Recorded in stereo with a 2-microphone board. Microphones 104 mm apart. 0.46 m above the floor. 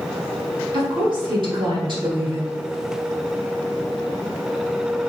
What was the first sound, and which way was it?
A woman speaking, 50° right (ahead or behind).